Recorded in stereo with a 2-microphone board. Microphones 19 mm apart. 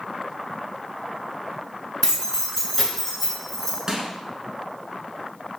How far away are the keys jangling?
About 1.2 m.